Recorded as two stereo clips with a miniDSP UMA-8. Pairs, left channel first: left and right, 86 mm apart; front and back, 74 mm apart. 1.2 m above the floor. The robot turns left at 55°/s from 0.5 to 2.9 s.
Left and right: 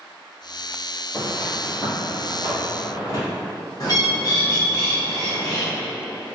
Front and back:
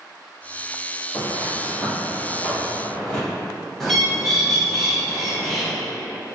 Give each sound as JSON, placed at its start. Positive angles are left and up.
{"t": 1.1, "sound": "footsteps", "azimuth_deg": 70, "distance_m": 1.4}
{"t": 3.8, "sound": "a bird", "azimuth_deg": 85, "distance_m": 0.8}